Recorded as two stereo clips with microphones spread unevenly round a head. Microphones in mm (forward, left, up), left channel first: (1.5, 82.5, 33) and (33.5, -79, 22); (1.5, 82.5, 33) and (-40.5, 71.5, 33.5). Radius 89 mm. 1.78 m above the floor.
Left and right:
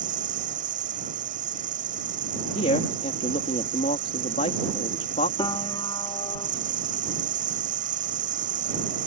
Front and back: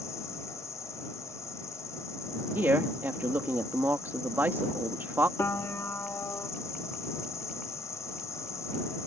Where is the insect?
35° right.